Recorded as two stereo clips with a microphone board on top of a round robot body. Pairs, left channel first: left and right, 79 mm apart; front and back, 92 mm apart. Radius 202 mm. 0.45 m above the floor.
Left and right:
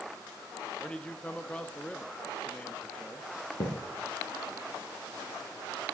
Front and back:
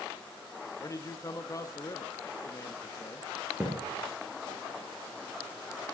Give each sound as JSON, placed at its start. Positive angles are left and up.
{"t": 0.8, "sound": "a man speaking", "azimuth_deg": 20, "distance_m": 1.1}
{"t": 3.6, "sound": "a thud", "azimuth_deg": 105, "distance_m": 3.5}